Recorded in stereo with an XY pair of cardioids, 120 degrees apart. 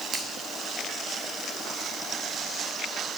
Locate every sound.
0.1 s a finger snap: 50° right, 2 m